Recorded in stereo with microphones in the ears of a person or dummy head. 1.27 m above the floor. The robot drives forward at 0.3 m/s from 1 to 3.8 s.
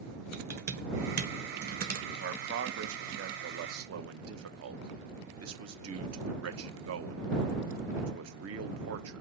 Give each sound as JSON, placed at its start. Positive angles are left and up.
{"t": 0.3, "sound": "typing on a keyboard", "side_deg": -55, "distance_m": 1.1}
{"t": 2.1, "sound": "a man speaking", "side_deg": -60, "distance_m": 1.1}